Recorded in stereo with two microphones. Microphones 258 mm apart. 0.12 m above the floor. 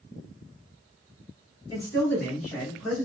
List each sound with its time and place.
1.7 s a man speaking: 15° left (ahead or behind), 1.7 m; by 3.1 s 5° right (ahead or behind), 1.5 m